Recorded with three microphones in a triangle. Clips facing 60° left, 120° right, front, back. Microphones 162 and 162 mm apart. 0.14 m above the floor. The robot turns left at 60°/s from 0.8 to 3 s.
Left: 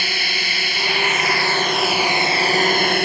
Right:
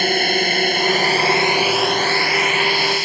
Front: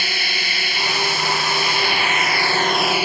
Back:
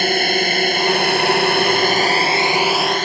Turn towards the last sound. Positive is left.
turn(degrees=80)